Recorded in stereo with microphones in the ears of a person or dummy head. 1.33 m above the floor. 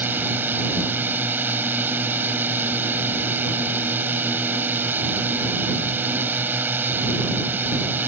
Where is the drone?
15° right (ahead or behind).